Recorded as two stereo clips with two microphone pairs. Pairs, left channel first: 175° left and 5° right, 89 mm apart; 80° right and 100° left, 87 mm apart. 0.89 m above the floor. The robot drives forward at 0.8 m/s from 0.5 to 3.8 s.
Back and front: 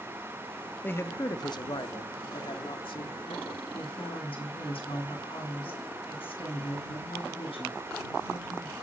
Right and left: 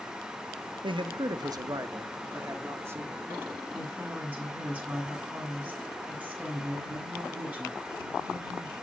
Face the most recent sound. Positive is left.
turn(degrees=175)